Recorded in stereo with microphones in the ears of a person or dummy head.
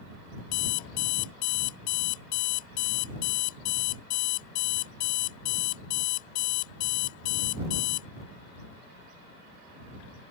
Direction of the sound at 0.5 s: 70° left (ahead or behind).